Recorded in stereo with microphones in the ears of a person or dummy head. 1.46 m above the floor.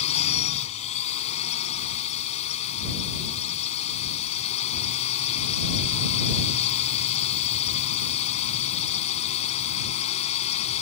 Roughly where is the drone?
Left.